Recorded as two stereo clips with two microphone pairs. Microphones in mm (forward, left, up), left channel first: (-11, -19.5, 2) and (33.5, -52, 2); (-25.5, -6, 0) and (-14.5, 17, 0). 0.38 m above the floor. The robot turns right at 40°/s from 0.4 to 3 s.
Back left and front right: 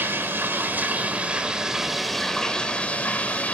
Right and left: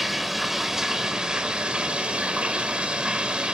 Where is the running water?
15° right, 1.0 m; by 3.5 s 90° left, 1.0 m.